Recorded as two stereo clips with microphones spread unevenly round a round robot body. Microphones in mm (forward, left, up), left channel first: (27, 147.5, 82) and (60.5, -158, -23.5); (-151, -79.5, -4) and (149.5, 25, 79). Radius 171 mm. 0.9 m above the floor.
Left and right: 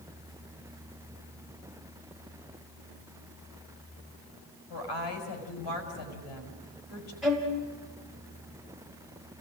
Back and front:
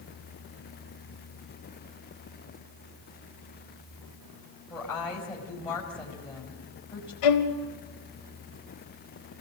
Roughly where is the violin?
Behind.